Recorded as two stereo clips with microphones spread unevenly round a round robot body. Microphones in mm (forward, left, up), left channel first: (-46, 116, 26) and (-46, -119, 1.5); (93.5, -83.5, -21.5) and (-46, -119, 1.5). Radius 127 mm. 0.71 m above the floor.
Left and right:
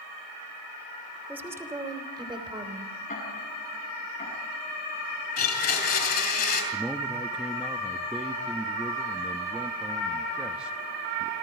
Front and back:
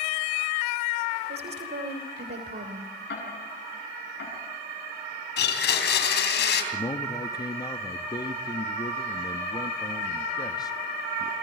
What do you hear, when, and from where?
1.3 s a woman speaking: 170° right, 3 m; by 2.9 s 155° right, 3.5 m
3.1 s ticking: 25° left, 8 m
5.4 s a blender: 30° left, 3 m
6.7 s a man speaking: 15° right, 0.9 m